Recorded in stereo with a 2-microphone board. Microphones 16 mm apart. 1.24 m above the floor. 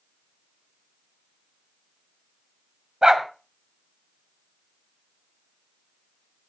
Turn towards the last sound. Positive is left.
turn(degrees=-40)  # may be behind; listen again after turning